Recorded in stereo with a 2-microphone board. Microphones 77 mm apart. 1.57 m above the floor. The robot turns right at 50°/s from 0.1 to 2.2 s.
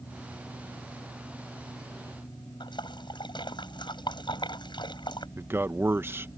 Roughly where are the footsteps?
No footsteps in this recording.